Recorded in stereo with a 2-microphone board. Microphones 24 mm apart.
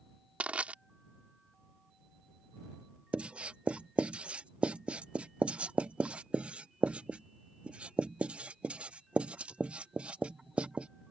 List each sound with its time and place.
0.4 s crushing: 75° right (ahead or behind)
3.1 s writing: 55° right (ahead or behind)